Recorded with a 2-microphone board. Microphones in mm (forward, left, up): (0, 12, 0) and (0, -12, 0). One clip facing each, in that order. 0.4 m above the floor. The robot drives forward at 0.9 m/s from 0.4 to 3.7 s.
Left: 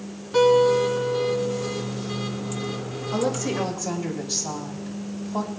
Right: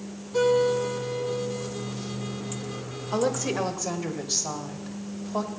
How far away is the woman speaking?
About 0.9 m.